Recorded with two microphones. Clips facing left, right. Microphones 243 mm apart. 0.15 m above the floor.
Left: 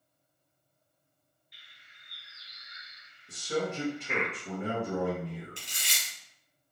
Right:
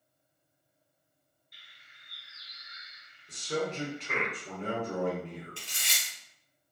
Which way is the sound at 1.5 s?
50° right (ahead or behind).